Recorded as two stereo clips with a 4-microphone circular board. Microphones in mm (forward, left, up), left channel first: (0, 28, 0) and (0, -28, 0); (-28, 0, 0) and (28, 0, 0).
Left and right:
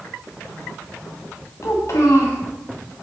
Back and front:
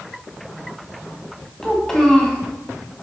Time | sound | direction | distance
1.6 | a child speaking | 100° left | 1.7 m